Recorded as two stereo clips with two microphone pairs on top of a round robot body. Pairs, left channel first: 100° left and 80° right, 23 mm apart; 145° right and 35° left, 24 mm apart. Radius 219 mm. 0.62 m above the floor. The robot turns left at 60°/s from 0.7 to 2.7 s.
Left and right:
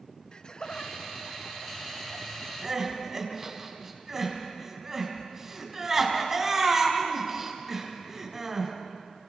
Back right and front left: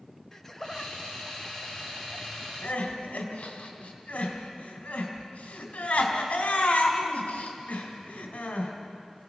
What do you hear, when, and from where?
0.3 s laughter: 145° left, 1.4 m; by 3.6 s 25° left, 1.4 m
2.6 s crying: 150° right, 2.5 m; by 8.7 s 155° right, 2.5 m